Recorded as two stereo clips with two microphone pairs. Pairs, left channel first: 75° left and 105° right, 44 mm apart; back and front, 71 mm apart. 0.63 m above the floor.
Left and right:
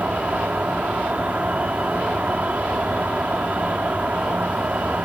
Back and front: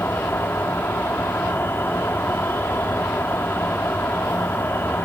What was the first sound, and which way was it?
An insect, 140° right.